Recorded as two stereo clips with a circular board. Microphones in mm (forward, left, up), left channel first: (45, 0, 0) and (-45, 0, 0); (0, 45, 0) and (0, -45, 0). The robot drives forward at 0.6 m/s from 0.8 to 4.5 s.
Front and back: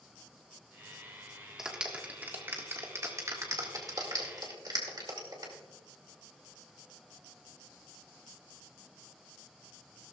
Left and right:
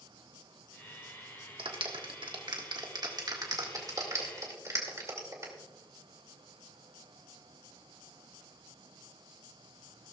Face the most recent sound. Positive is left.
turn(degrees=-140)